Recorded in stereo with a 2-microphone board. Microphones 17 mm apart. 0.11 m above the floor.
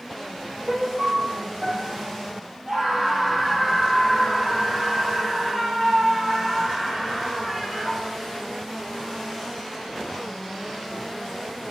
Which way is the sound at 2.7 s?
25° right (ahead or behind).